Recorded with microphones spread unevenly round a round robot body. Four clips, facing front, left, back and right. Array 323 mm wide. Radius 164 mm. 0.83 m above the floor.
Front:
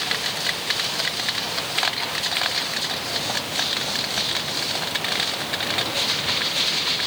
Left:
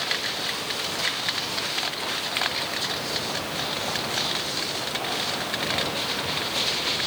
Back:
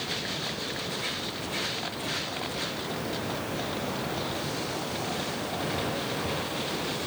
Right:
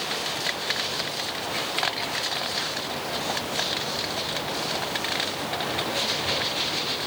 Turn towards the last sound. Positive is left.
No sound to turn to.